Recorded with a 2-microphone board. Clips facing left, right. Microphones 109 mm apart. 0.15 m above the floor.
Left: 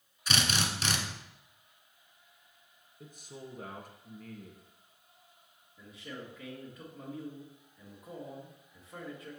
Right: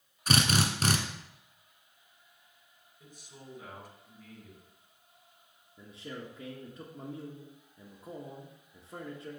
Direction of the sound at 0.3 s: 45° right (ahead or behind).